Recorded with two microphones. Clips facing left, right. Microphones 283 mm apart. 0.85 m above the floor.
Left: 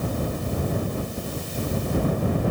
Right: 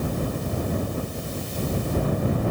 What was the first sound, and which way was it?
Only background noise.